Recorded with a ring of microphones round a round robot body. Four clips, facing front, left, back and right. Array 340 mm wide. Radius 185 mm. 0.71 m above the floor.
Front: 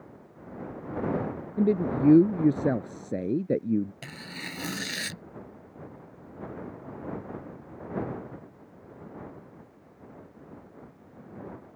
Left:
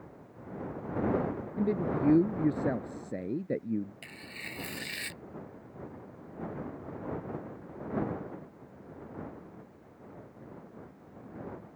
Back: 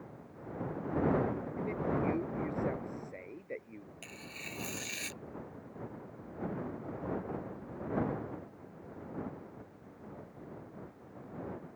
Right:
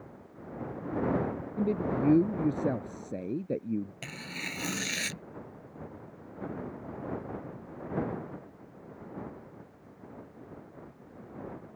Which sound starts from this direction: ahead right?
Tearing paper, at 4.0 s.